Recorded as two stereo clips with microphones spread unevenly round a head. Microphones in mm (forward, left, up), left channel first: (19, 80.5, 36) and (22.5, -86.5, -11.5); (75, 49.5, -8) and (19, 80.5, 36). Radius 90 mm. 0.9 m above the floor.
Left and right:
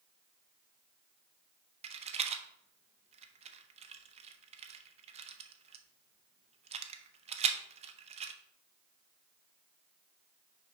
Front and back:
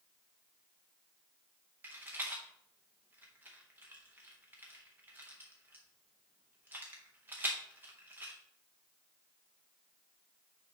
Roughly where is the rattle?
Behind right.